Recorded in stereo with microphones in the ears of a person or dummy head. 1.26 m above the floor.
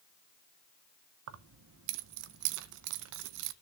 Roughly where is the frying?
No frying in this recording.